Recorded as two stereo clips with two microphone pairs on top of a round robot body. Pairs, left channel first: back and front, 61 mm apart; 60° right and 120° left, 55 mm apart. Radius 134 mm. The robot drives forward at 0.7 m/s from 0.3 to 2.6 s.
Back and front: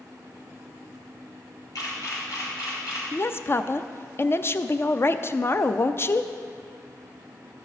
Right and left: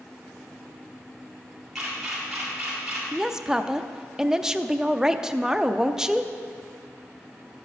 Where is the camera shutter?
150° right, 3.5 m; by 3.0 s 155° right, 4 m.